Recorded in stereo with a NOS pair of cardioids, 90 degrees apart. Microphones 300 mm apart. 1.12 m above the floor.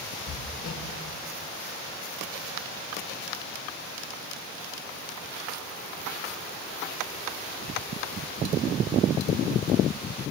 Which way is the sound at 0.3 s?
45° left.